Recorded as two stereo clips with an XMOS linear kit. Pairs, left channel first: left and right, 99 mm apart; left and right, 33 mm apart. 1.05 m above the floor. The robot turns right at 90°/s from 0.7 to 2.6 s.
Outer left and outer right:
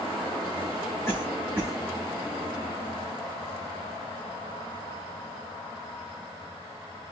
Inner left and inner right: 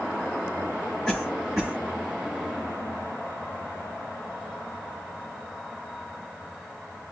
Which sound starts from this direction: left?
A cough, at 1.1 s.